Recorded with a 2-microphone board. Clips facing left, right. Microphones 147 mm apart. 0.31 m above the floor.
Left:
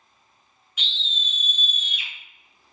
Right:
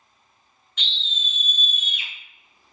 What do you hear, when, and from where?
0.8 s a scream: 10° left (ahead or behind), 1.3 m; by 2.1 s 30° right (ahead or behind), 1.2 m